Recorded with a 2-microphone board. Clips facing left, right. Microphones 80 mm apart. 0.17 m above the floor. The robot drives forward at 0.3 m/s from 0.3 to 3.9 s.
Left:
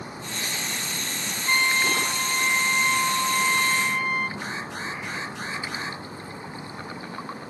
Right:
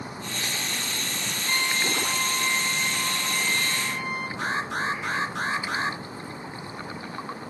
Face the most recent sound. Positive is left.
turn(degrees=-60)  # may be behind; listen again after turning